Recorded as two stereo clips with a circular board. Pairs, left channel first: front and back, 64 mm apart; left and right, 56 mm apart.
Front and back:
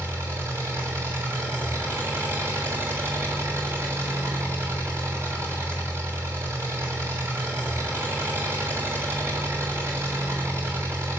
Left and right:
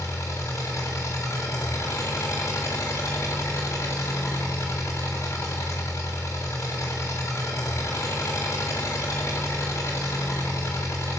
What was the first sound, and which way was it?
An engine running, 130° left.